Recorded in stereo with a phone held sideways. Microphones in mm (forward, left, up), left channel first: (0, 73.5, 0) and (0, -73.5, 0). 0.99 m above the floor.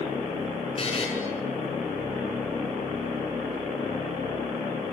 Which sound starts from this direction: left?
A buzzer, at 0.8 s.